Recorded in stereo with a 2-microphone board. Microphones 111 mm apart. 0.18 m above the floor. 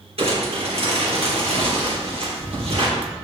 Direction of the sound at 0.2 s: 65° right (ahead or behind).